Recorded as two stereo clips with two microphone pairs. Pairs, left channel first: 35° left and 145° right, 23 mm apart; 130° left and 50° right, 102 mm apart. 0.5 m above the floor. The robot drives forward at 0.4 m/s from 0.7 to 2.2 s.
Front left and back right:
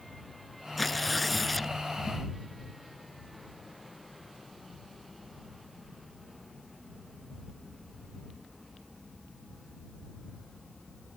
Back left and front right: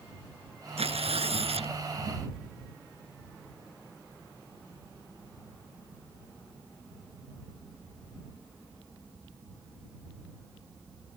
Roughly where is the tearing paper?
Ahead right.